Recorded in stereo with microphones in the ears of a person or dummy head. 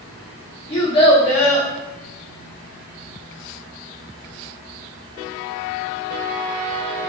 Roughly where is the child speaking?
Left.